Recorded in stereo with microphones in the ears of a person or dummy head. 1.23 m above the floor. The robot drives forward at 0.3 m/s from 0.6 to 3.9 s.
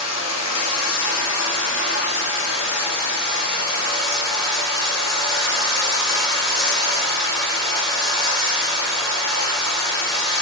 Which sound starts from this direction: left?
Running water, at 0.0 s.